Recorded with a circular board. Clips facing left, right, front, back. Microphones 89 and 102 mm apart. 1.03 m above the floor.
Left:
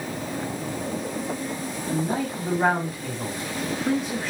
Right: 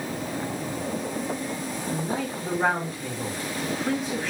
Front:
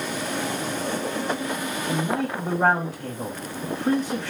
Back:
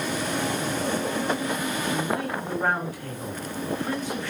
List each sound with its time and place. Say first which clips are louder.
1.9 s a man speaking: left 4 dB, front 4 dB; 10° left, 1.7 m